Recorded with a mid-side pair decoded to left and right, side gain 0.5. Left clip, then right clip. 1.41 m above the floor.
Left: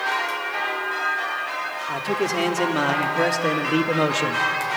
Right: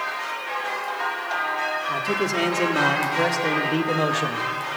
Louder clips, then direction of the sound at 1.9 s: Even; straight ahead.